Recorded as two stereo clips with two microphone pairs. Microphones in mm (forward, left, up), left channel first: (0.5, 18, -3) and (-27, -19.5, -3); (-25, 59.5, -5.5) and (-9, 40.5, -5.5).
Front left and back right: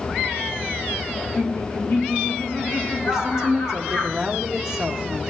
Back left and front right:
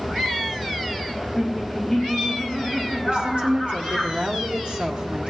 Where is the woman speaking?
50° right, 1.4 m.